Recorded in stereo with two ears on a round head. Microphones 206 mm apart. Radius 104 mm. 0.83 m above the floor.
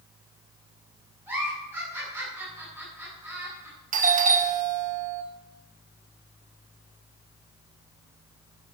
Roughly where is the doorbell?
Right.